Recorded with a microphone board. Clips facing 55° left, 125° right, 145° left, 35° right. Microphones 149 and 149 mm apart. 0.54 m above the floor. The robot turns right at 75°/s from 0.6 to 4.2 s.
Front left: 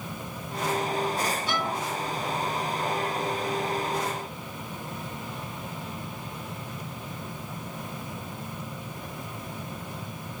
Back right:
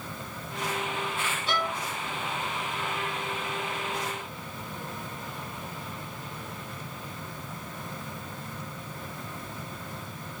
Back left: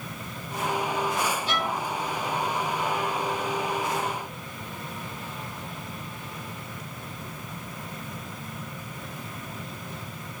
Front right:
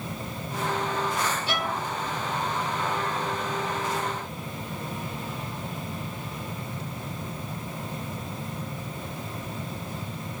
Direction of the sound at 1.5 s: 35° right.